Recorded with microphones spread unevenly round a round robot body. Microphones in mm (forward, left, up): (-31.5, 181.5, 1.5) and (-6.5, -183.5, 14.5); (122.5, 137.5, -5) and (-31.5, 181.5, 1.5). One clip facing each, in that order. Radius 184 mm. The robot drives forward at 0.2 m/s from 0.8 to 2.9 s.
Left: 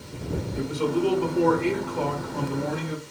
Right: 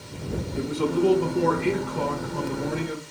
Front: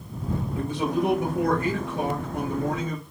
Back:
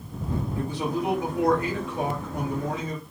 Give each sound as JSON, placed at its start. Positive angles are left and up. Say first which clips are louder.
{"t": 0.6, "sound": "a man speaking", "louder": "right 2 dB, front 4 dB", "azimuth_deg": -50, "distance_m": 1.3}